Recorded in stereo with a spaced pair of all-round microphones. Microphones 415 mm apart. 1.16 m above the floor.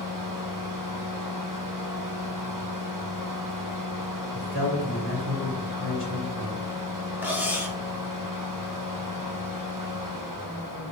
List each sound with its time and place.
0.0 s a fan: 50° right (ahead or behind), 0.7 m
4.3 s a man speaking: 30° left (ahead or behind), 1.7 m
7.2 s cutlery clinking: 5° right (ahead or behind), 0.7 m